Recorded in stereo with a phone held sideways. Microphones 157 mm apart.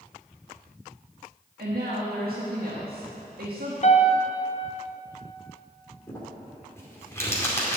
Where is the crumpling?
20° left (ahead or behind), 2 m.